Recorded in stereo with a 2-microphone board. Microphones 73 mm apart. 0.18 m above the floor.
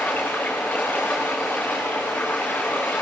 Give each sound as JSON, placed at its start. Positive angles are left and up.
{"t": 0.0, "sound": "running water", "side_deg": 20, "distance_m": 7.5}